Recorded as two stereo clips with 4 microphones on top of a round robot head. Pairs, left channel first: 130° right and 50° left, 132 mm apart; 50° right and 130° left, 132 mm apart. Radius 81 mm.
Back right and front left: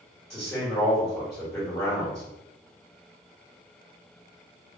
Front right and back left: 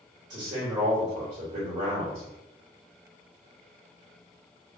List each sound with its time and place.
0.3 s a man speaking: 160° left, 1.6 m